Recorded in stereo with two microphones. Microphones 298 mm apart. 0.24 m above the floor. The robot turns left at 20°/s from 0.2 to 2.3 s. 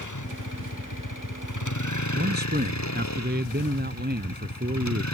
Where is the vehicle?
105° left; by 5.1 s 65° left.